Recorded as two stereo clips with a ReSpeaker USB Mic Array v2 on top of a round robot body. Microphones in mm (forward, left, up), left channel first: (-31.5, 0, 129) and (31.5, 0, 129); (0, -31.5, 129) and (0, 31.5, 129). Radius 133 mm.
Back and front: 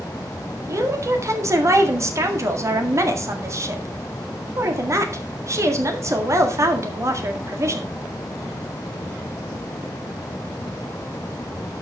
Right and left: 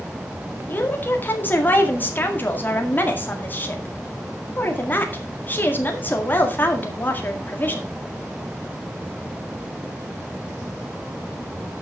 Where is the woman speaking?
35° right, 2.0 m.